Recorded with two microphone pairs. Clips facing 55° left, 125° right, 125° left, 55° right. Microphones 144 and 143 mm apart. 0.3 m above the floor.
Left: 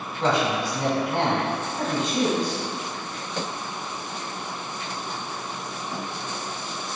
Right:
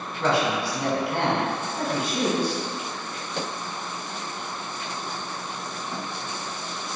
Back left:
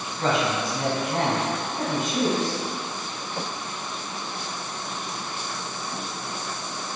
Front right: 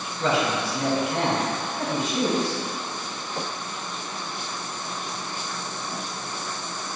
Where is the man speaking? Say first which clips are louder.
Even, even; 120° left, 1.6 m.